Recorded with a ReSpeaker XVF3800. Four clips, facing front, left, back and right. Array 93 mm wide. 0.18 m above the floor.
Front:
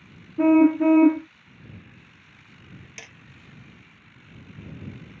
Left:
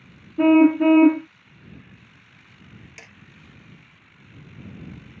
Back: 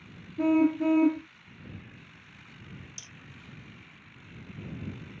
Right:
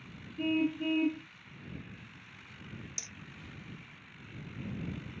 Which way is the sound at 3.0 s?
35° left.